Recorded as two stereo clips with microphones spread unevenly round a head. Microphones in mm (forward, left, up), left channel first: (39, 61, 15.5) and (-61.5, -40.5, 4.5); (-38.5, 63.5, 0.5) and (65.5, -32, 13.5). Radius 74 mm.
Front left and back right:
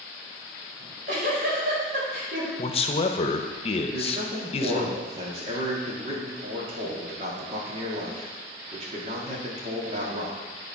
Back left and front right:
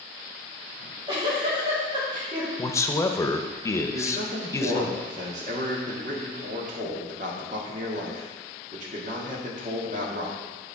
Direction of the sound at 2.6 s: 80° left.